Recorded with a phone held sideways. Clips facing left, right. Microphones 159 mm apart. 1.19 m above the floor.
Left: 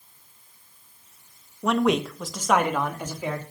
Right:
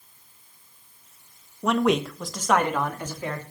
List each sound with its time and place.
1.6 s a man speaking: centre (ahead or behind), 1.3 m; by 3.4 s 10° left (ahead or behind), 3.5 m